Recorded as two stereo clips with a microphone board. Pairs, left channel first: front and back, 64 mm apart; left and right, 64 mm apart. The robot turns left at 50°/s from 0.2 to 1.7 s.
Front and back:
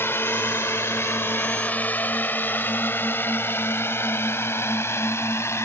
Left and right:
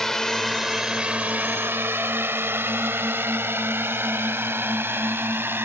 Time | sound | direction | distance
0.0 | a drone | 5° left | ?